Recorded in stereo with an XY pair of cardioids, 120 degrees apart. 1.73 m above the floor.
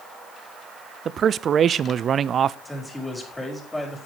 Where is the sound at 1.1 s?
40° right, 0.6 m.